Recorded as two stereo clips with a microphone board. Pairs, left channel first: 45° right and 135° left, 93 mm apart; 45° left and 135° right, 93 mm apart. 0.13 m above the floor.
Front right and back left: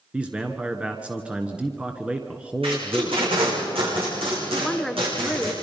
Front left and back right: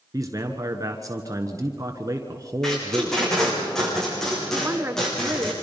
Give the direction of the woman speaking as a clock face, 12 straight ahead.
4 o'clock.